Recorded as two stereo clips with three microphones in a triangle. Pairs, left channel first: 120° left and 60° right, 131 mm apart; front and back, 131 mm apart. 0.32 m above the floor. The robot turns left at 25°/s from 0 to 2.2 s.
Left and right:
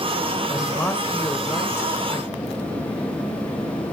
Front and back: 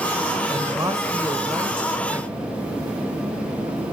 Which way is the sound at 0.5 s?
175° right.